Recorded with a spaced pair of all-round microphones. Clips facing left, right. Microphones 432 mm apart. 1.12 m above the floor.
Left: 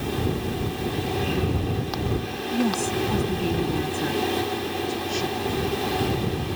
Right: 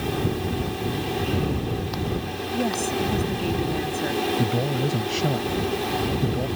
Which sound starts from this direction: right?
A man speaking, at 4.4 s.